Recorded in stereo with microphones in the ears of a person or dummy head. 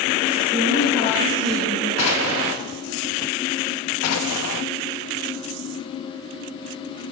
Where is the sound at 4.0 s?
90° left, 1.1 m.